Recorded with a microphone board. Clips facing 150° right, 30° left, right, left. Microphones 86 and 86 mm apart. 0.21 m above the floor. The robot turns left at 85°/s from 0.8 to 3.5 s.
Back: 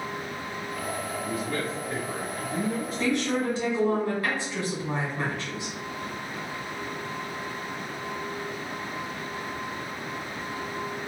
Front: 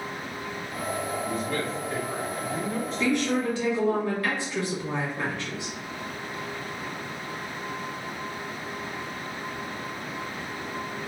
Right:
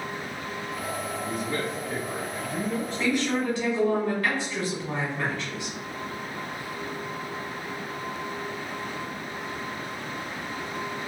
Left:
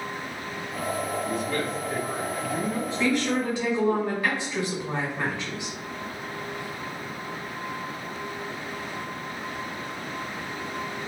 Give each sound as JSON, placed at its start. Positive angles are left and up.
{"t": 1.2, "sound": "a man speaking", "azimuth_deg": -85, "distance_m": 1.1}
{"t": 3.0, "sound": "a woman speaking", "azimuth_deg": -160, "distance_m": 1.4}